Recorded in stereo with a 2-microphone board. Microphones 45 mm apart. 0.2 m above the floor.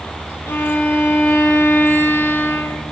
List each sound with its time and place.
0.5 s a violin: 70° left (ahead or behind), 4.5 m